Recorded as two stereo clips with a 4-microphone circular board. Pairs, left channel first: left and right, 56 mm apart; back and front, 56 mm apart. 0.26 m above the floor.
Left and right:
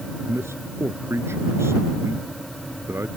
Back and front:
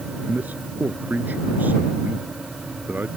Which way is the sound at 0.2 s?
55° right.